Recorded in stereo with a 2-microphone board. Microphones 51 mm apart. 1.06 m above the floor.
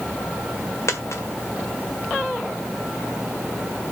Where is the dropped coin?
75° left (ahead or behind), 1.8 m.